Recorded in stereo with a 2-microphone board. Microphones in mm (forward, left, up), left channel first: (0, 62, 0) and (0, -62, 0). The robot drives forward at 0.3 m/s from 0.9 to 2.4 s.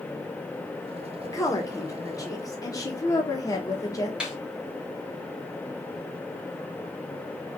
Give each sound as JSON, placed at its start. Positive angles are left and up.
{"t": 1.2, "sound": "a woman speaking", "side_deg": 25, "distance_m": 0.9}
{"t": 4.2, "sound": "a snare drum", "side_deg": -5, "distance_m": 1.1}